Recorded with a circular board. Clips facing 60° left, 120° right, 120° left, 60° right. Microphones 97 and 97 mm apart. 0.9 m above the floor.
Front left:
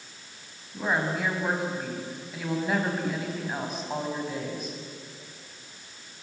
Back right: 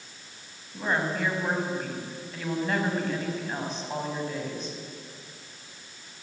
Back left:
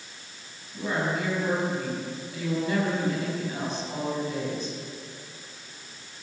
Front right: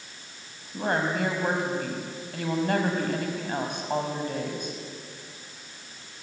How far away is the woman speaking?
About 5.5 m.